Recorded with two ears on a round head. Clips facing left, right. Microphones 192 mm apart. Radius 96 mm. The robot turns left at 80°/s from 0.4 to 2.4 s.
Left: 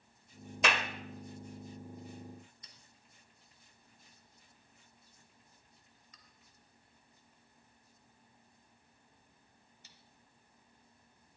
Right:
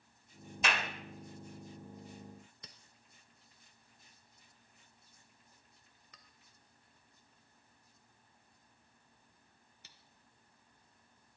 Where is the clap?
60° left (ahead or behind), 1.5 m; by 0.8 s 45° left (ahead or behind), 1.5 m.